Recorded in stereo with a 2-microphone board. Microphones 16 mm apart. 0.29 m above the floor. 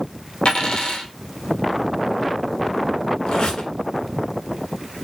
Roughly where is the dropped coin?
Left.